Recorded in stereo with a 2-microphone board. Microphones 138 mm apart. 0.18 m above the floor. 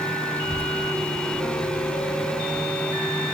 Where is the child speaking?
20° right (ahead or behind), 3 m; by 2.7 s 20° left (ahead or behind), 3.5 m.